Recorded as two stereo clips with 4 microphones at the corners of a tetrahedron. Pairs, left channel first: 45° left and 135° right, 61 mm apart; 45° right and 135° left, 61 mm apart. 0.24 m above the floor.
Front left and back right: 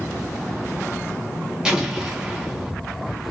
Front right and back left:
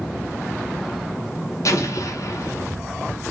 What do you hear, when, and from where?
1.6 s an explosion: 55° right, 0.9 m